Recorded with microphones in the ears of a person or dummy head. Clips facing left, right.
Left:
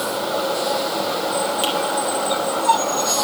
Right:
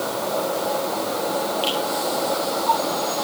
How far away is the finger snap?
About 4.5 m.